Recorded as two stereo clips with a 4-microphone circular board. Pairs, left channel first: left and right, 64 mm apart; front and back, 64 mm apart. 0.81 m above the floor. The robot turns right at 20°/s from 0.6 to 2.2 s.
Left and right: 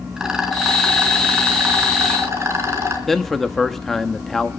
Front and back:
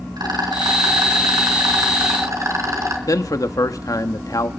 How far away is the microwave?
I don't hear a microwave.